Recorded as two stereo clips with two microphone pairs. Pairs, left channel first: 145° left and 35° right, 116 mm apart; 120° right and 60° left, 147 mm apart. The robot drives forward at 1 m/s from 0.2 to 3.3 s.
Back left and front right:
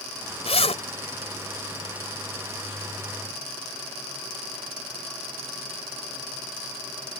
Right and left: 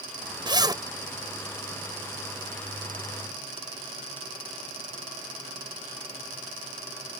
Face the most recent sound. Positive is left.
turn(degrees=145)